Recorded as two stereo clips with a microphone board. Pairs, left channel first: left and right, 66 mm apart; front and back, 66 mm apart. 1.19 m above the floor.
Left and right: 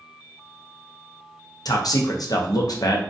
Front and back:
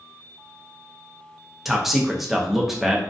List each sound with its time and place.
1.6 s a man speaking: 95° left, 0.5 m